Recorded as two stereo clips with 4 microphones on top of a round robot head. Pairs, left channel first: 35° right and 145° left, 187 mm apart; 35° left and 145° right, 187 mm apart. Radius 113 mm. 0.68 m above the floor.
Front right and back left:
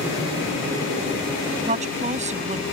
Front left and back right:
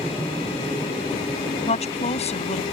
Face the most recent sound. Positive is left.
turn(degrees=90)